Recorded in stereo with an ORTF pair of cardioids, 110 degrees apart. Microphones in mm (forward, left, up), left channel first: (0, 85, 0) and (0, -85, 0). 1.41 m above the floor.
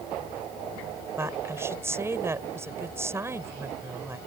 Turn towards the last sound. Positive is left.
turn(degrees=-15)